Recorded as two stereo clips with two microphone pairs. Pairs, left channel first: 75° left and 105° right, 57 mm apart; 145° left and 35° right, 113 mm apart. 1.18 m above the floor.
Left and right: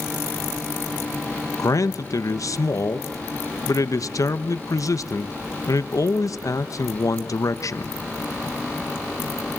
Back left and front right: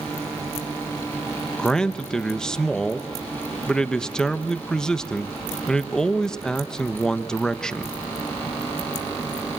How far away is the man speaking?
About 1.2 m.